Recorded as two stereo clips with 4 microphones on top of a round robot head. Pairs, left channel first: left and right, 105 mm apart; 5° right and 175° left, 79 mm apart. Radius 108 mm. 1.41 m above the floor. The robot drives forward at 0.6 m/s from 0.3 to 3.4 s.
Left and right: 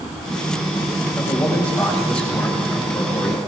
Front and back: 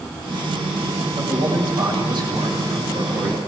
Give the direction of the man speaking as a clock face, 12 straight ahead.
6 o'clock.